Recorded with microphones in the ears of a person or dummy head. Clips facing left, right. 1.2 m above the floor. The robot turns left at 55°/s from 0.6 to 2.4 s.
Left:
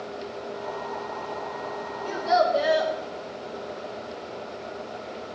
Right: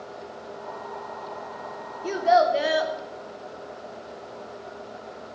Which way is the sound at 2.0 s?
60° right (ahead or behind).